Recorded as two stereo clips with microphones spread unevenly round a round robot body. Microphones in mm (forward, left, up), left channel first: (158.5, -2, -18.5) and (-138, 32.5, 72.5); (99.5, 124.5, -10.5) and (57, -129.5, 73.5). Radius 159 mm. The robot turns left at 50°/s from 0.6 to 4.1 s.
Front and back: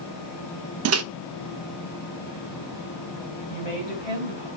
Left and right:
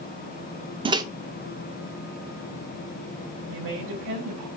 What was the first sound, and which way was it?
A microwave, 170° left.